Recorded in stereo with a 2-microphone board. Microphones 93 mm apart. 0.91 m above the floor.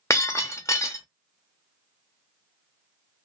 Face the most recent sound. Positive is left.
turn(degrees=30)  # may be behind; listen again after turning